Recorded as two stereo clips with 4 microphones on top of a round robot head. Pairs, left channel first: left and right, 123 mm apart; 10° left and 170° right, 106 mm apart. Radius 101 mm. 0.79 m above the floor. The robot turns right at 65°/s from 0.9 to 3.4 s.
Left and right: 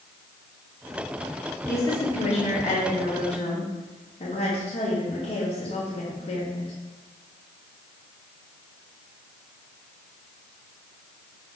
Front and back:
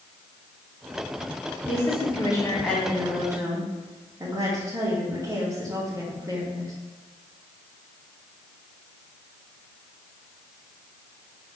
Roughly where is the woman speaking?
Ahead.